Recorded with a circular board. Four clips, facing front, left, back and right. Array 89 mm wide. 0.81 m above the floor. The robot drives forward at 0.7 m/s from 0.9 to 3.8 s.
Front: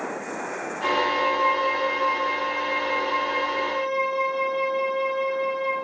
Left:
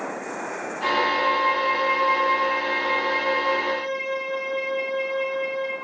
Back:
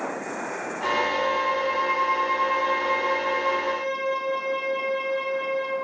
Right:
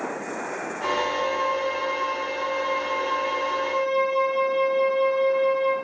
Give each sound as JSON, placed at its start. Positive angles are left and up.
{"t": 0.8, "sound": "a violin", "azimuth_deg": 70, "distance_m": 1.7}